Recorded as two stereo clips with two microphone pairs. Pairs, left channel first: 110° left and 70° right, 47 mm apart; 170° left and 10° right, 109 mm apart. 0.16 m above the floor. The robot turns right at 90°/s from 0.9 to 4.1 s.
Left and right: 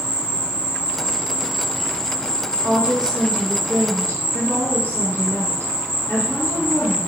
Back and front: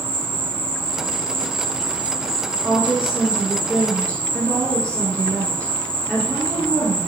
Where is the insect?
50° right, 0.7 m; by 7.1 s 125° right, 0.7 m.